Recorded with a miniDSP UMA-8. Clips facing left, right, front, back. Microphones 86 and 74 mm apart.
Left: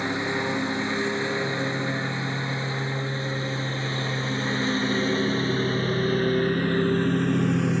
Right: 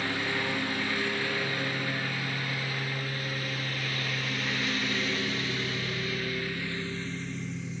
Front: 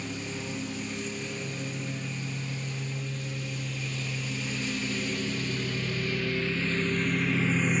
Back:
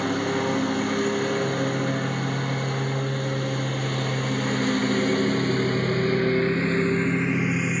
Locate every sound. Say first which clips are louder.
0.0 s a lawn mower: left 5 dB, back 12 dB; 160° left; by 7.8 s 90° left